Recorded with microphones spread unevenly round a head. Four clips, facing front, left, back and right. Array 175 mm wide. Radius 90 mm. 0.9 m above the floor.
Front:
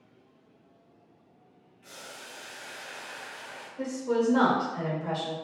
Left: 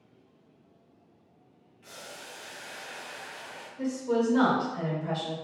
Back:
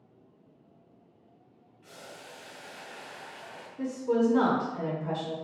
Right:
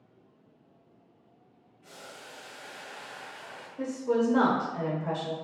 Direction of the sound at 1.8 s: 100° left.